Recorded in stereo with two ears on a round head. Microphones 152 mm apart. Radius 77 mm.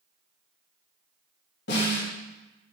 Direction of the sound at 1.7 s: 75° left (ahead or behind).